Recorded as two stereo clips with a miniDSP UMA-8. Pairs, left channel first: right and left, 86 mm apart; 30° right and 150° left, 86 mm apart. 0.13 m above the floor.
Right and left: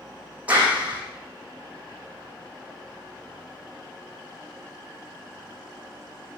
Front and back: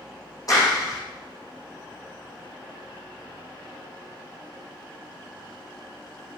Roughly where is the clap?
Ahead.